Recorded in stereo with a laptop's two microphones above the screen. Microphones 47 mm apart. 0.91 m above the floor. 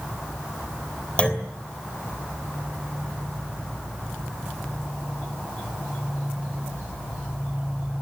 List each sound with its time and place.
1.2 s a clunk: 25° left (ahead or behind), 3 m